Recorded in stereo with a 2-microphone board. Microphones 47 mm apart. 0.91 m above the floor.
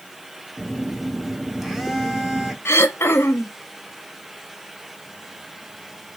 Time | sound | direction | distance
0.6 | a phone buzzing | 5° right (ahead or behind) | 0.7 m
2.6 | throat clearing | 60° left (ahead or behind) | 0.6 m